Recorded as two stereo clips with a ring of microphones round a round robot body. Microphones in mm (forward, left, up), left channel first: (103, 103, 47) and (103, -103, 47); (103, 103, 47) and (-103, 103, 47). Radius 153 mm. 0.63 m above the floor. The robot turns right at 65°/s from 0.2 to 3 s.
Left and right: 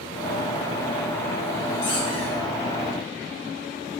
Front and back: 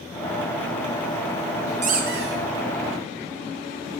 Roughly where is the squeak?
Behind left.